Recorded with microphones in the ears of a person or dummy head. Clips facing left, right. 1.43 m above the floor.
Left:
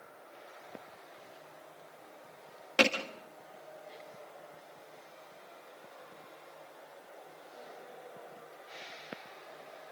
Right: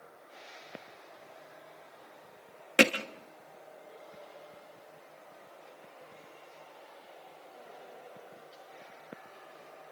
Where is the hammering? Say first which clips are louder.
Right 3 dB; 30° right (ahead or behind), 1.6 m.